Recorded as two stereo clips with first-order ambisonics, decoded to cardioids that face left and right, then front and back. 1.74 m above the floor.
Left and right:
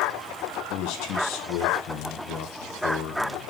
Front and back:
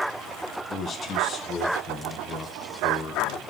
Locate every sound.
0.7 s a man speaking: 65° left, 1.3 m